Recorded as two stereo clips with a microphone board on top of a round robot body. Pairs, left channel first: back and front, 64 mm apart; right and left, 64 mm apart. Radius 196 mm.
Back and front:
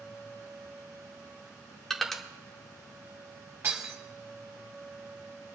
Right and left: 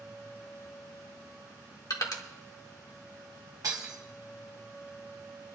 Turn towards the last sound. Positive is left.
turn(degrees=55)